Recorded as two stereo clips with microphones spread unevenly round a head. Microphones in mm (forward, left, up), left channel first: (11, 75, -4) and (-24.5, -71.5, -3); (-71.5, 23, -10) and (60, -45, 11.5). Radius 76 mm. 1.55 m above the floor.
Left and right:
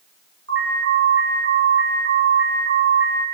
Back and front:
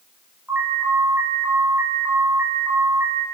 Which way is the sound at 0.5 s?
105° right.